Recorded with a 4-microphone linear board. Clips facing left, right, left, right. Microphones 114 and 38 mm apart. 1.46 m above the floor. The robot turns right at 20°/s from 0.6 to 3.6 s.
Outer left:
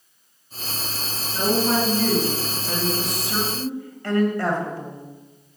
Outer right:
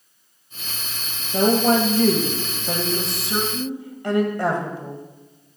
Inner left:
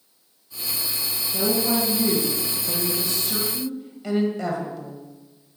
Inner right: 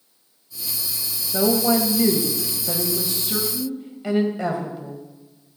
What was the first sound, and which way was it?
A woman speaking, 65° right.